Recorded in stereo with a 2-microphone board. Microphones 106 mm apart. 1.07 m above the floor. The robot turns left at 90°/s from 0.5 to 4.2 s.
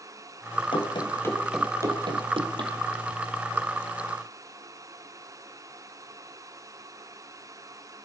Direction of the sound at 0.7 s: 55° left (ahead or behind).